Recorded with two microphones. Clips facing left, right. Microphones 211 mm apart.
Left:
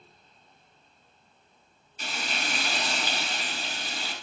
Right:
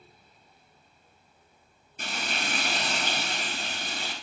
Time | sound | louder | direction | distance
2.0 | frying | right 1 dB | 60° right (ahead or behind) | 1.5 m